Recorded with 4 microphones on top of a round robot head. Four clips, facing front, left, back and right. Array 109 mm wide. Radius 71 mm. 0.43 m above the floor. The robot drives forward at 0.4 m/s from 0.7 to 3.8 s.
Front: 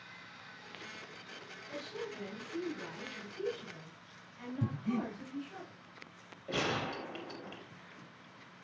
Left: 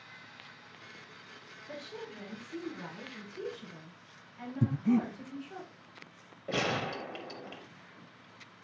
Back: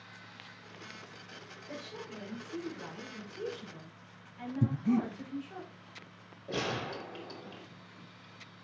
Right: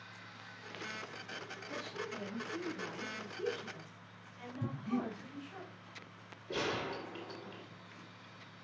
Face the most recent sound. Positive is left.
turn(degrees=95)